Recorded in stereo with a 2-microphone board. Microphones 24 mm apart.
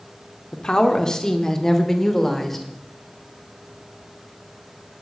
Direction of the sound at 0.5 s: 35° left (ahead or behind).